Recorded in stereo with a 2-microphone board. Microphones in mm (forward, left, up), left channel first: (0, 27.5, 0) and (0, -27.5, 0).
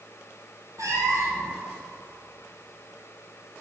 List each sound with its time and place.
0.8 s a cat meowing: 70° right (ahead or behind), 1.9 m